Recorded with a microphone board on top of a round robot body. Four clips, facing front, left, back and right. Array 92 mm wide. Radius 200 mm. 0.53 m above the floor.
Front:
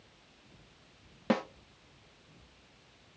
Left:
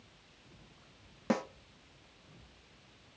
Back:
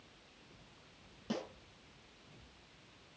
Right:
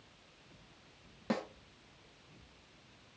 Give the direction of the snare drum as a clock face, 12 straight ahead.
11 o'clock.